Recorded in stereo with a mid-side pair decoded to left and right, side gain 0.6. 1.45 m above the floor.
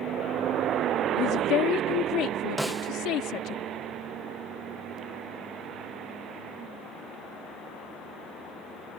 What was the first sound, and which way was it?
A woman speaking, 65° left.